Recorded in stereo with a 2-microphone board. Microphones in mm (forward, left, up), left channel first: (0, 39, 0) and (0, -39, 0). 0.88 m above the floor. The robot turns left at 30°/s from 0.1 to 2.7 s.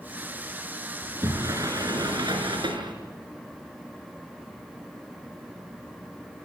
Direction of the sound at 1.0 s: 30° right.